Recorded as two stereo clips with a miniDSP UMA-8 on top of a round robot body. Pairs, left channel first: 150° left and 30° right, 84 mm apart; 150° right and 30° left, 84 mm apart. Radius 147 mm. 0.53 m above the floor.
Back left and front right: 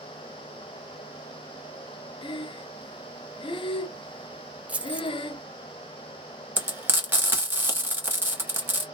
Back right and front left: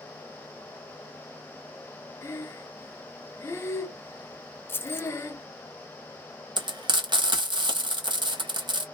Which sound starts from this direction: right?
Keys jangling, at 4.7 s.